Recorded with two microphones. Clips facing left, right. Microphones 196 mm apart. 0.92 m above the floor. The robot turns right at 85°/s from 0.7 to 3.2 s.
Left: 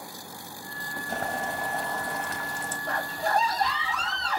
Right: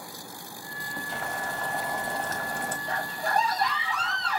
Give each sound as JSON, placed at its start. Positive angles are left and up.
{"t": 1.1, "sound": "boiling", "azimuth_deg": 125, "distance_m": 1.3}
{"t": 2.9, "sound": "a scream", "side_deg": 65, "distance_m": 1.7}